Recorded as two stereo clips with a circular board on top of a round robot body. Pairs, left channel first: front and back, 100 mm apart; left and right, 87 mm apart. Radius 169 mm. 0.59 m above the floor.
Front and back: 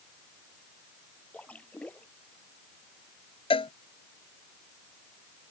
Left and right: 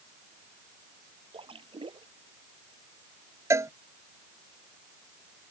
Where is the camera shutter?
I don't hear a camera shutter.